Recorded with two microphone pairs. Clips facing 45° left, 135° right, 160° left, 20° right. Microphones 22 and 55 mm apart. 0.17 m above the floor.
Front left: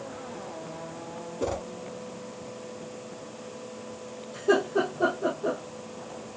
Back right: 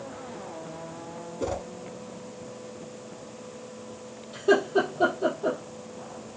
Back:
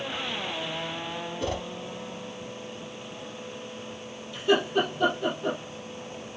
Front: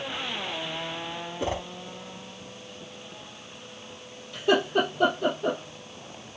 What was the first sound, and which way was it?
A whoosh, 25° right.